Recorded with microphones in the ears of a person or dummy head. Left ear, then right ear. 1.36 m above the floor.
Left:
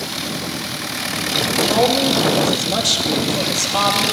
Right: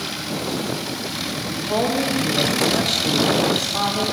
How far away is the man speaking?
About 2 m.